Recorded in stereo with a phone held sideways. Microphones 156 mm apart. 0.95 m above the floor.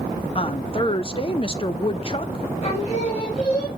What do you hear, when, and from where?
0.3 s a woman speaking: 35° left (ahead or behind), 0.6 m
2.6 s singing: 40° left (ahead or behind), 3.5 m